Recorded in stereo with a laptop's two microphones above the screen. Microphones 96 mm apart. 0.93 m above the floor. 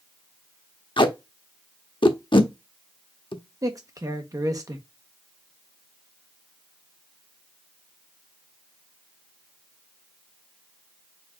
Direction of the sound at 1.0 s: 60° left (ahead or behind).